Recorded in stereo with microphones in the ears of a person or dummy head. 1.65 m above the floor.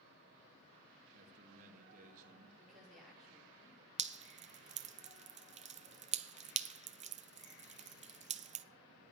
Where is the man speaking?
40° right (ahead or behind), 1.9 m.